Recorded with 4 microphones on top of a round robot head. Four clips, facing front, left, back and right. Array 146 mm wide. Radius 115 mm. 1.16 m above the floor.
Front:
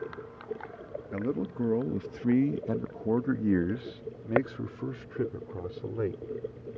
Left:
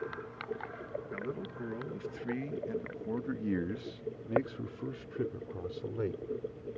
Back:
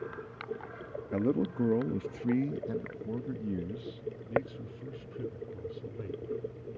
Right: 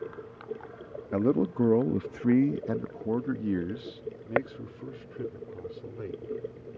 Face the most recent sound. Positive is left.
turn(degrees=15)